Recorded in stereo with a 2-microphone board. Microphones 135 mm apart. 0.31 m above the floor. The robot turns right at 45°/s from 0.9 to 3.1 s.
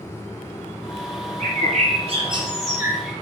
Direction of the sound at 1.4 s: 80° right.